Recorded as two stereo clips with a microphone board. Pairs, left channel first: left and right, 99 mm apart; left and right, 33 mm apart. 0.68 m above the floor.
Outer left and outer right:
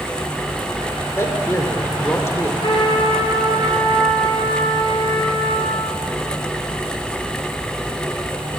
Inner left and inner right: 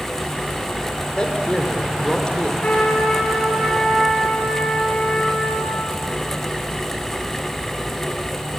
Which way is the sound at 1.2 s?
30° left (ahead or behind).